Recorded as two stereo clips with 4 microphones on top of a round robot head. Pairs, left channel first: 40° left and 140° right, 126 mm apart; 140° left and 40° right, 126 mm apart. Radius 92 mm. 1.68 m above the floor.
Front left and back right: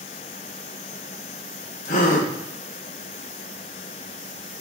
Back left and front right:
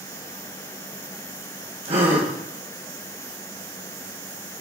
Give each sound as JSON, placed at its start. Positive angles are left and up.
{"t": 1.9, "sound": "a gasp", "azimuth_deg": 10, "distance_m": 2.5}